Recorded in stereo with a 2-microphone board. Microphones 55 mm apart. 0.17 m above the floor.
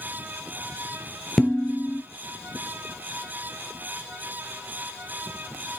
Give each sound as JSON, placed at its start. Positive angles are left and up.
{"t": 1.4, "sound": "dishes clattering", "side_deg": 10, "distance_m": 2.0}